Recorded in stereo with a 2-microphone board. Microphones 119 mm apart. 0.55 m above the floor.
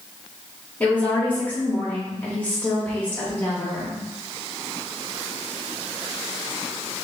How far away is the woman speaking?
About 1.1 m.